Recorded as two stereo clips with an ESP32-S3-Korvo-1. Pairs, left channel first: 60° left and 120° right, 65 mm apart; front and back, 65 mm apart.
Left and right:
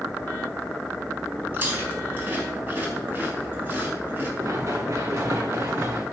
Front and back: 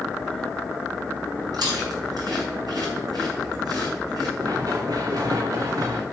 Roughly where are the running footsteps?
Behind.